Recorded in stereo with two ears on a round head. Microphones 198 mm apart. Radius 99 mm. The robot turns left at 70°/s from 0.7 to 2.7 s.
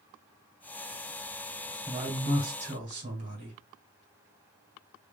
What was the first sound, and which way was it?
A man speaking, 30° right.